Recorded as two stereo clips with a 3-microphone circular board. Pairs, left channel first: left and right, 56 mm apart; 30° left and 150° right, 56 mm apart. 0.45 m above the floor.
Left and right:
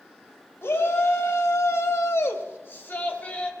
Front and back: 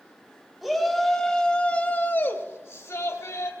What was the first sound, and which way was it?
A shout, 120° left.